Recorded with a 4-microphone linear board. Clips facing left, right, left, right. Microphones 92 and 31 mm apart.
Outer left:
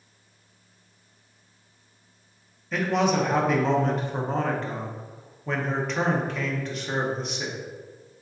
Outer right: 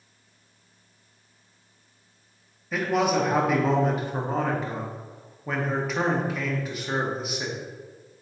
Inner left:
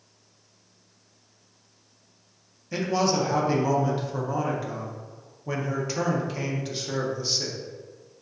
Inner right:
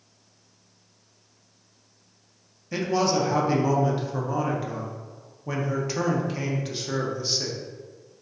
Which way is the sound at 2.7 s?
5° right (ahead or behind).